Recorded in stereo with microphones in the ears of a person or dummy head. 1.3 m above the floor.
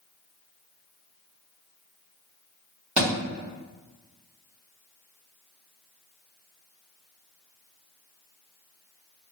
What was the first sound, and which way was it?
A thud, 30° right (ahead or behind).